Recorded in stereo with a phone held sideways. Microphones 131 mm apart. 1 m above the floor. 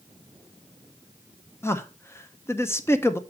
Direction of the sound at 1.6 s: 20° left (ahead or behind).